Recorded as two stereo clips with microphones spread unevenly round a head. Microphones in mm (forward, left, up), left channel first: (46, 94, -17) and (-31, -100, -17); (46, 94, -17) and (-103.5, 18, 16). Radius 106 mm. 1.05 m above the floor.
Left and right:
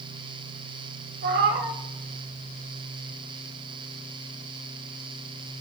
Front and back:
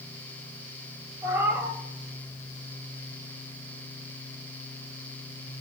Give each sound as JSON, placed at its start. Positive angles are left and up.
{"t": 1.2, "sound": "a cat meowing", "azimuth_deg": -80, "distance_m": 1.6}